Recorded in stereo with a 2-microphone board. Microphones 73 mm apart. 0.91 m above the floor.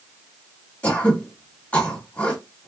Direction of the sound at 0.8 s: 20° left (ahead or behind).